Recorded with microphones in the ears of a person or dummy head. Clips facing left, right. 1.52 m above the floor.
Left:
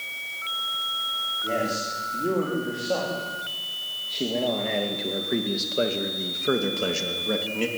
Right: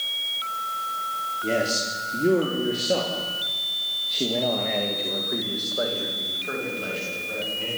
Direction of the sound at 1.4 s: 35° right (ahead or behind).